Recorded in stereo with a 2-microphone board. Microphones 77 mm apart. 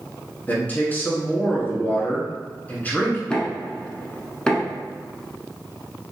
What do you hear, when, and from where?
0.5 s a man speaking: 25° left (ahead or behind), 1.1 m
3.3 s knocking: 10° left (ahead or behind), 0.8 m